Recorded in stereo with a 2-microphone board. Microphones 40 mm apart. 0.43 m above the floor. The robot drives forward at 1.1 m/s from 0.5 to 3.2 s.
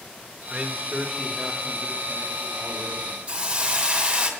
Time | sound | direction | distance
0.5 | a man speaking | 20° right (ahead or behind) | 1.0 m
3.3 | a hiss | 25° right (ahead or behind) | 2.5 m